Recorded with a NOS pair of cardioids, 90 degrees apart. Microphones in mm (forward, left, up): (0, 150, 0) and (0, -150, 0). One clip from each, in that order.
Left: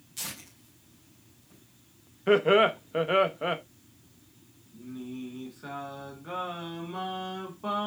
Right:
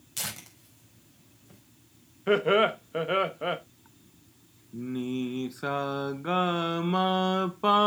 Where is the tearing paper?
70° right, 5 m.